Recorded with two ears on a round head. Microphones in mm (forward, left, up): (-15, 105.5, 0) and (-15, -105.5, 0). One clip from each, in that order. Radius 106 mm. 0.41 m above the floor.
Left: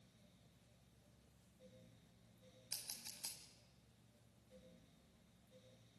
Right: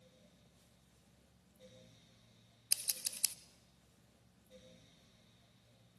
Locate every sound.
2.7 s scissors: 70° right (ahead or behind), 0.9 m